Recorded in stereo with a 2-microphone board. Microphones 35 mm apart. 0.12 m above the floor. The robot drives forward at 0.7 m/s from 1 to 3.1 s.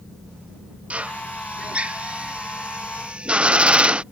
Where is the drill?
40° right (ahead or behind); by 4.0 s 30° right (ahead or behind).